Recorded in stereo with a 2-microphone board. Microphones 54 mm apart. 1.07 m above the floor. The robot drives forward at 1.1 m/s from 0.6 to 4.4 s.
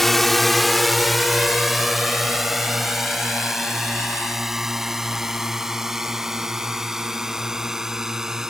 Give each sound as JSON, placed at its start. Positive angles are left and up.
{"t": 0.0, "sound": "a drone", "side_deg": 5}